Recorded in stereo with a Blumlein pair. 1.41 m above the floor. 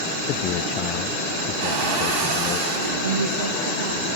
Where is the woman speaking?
60° right, 1.2 m.